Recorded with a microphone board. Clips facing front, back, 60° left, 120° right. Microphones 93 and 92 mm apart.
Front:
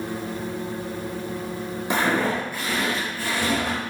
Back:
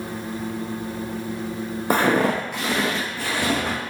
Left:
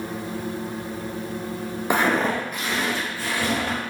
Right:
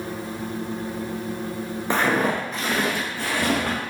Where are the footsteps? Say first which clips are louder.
Back 3 dB, even; 135° left, 0.5 m; by 3.8 s 140° right, 1.1 m.